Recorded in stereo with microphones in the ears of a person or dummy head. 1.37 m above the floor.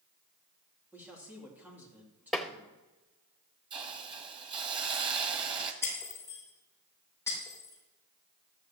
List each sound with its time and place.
0.9 s a man speaking: 5° right (ahead or behind), 3 m
2.3 s tapping: 5° right (ahead or behind), 0.8 m
3.7 s a hiss: 25° right (ahead or behind), 1.2 m
5.8 s breaking glass: 20° left (ahead or behind), 6 m